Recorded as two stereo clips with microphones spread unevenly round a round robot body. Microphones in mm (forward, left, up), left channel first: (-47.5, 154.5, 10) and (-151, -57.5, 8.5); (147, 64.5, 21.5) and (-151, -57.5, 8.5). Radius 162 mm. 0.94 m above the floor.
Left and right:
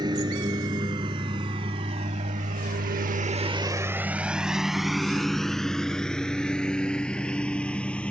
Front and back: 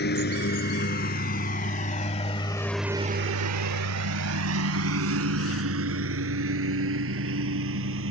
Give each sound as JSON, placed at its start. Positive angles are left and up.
{"t": 0.0, "sound": "a lawn mower", "azimuth_deg": -40}